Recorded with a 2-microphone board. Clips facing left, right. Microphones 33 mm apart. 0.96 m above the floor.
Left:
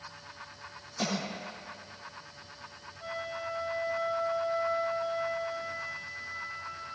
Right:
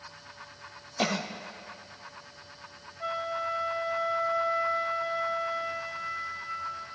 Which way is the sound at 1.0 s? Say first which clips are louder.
Right 4 dB; 35° right (ahead or behind).